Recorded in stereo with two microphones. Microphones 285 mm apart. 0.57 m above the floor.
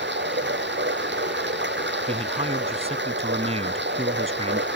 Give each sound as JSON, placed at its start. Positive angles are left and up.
{"t": 0.0, "sound": "running water", "side_deg": -40}
{"t": 2.1, "sound": "a man speaking", "side_deg": -20}